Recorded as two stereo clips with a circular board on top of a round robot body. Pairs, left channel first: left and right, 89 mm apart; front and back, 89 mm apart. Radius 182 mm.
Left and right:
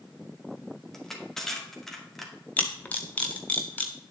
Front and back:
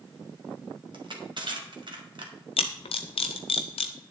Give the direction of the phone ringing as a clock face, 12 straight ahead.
No phone ringing in this recording.